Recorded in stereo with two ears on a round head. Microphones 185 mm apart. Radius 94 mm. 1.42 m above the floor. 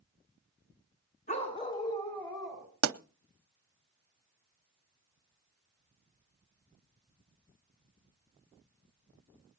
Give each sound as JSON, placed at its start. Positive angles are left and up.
{"t": 1.3, "sound": "a dog barking", "side_deg": 35, "distance_m": 2.5}
{"t": 2.8, "sound": "a pop", "side_deg": -75, "distance_m": 0.6}